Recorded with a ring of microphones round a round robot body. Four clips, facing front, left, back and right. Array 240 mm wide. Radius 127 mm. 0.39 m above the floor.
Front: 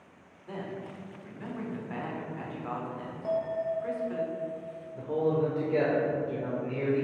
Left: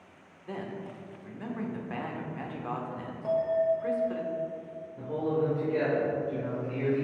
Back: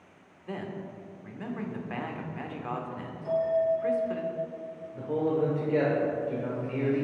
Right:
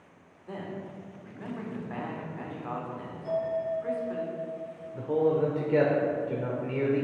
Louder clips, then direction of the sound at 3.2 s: Left 4 dB, back 5 dB; 50° left.